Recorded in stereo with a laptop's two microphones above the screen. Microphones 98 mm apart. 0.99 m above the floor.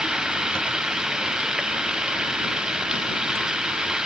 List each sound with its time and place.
0.0 s running water: 5° right (ahead or behind)